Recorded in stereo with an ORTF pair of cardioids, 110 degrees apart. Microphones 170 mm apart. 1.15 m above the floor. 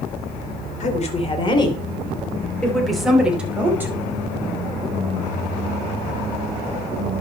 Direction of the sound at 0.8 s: 45° left.